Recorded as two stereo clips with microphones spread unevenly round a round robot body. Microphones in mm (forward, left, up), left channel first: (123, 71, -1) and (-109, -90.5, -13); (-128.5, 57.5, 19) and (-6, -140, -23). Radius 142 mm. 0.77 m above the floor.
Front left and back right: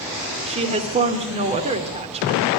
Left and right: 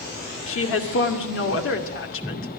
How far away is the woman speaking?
About 2.5 m.